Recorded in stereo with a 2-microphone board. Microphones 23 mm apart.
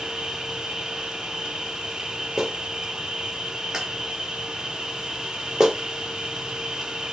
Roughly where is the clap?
Right.